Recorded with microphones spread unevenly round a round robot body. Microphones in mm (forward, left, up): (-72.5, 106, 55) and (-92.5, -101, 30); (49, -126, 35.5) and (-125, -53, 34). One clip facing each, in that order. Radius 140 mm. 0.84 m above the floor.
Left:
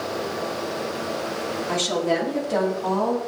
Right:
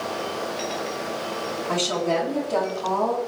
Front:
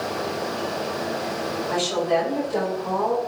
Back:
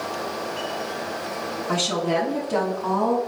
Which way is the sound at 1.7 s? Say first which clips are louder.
Even, front 1 dB; 165° left.